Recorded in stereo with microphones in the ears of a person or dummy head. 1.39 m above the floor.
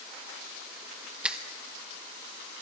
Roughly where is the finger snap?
Centre.